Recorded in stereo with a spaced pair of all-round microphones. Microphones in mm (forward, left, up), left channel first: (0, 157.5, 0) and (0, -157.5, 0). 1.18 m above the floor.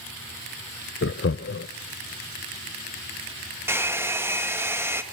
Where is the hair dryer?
10° right (ahead or behind), 2 m.